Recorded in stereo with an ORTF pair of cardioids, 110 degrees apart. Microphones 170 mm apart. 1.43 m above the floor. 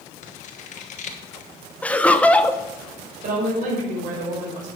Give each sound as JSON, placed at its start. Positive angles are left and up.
{"t": 0.2, "sound": "scissors", "azimuth_deg": 45, "distance_m": 1.4}
{"t": 1.8, "sound": "laughter", "azimuth_deg": 10, "distance_m": 0.8}
{"t": 3.2, "sound": "a woman speaking", "azimuth_deg": -50, "distance_m": 5.5}